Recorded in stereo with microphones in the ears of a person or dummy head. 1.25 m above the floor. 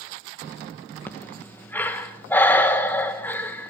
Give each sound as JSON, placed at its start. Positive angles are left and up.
{"t": 1.1, "sound": "breathing", "side_deg": 15, "distance_m": 1.5}